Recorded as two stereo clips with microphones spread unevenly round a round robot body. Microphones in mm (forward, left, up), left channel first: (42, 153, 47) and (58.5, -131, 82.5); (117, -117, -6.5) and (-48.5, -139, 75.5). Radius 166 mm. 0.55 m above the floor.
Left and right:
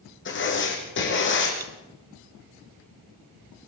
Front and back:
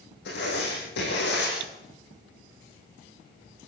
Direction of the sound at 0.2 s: 45° left.